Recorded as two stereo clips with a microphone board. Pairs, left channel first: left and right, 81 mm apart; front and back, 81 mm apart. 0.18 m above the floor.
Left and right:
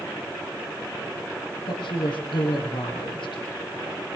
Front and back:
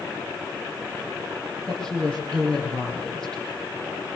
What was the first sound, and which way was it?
A woman speaking, 85° left.